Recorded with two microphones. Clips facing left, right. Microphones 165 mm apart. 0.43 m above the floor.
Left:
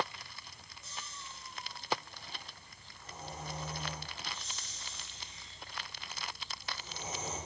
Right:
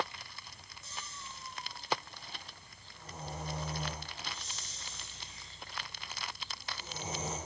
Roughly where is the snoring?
Right.